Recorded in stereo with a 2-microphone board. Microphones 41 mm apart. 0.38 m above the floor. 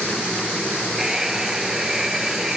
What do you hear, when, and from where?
1.0 s a hair dryer: 10° right (ahead or behind)